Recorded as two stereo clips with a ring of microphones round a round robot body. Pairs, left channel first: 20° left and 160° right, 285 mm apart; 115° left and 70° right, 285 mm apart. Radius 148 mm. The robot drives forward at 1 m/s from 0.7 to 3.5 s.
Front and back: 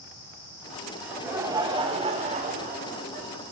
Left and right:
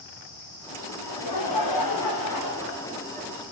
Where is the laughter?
115° left, 2.5 m; by 3.3 s 145° left, 4 m.